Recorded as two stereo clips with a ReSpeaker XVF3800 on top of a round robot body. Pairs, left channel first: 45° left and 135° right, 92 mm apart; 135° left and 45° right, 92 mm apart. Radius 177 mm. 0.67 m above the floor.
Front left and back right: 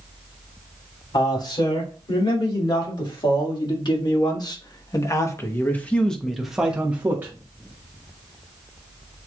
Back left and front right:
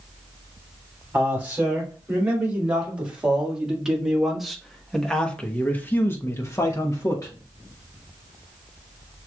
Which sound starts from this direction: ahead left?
A man speaking, at 1.1 s.